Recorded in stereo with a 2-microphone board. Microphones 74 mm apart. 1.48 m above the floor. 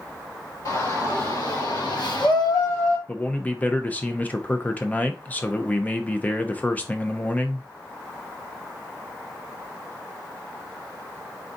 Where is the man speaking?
20° left (ahead or behind), 0.7 m.